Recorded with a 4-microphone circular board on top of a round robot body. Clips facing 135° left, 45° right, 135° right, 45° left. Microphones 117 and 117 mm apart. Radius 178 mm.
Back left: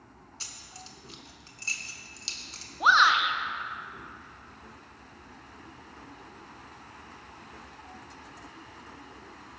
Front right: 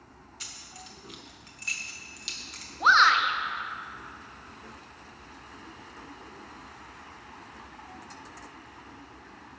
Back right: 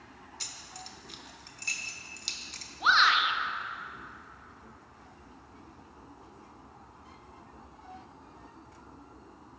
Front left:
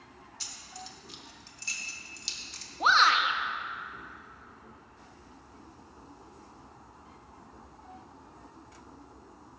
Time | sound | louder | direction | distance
0.4 | keys jangling | front right 1 dB, front left 3 dB | 170° right | 1.2 m
2.8 | a shout | front right 1 dB, front left 2 dB | 60° left | 1.1 m